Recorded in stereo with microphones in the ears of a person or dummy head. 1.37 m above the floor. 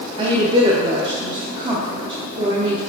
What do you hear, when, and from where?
0.2 s a woman speaking: 30° right (ahead or behind), 0.6 m